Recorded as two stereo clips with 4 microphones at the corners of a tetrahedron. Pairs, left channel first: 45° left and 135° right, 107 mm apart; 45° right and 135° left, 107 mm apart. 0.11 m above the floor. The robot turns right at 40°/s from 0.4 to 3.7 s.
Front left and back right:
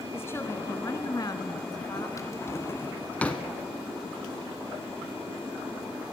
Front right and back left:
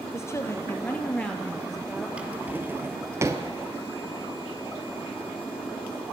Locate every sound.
0.1 s a woman speaking: 5° right, 1.2 m; by 2.1 s 60° left, 1.2 m
2.2 s a drawer: 65° left, 1.0 m; by 3.5 s 120° left, 1.0 m